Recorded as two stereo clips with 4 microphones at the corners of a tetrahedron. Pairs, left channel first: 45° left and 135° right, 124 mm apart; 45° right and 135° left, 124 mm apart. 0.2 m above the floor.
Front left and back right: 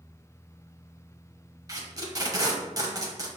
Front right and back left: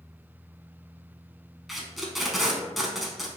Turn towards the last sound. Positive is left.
turn(degrees=-140)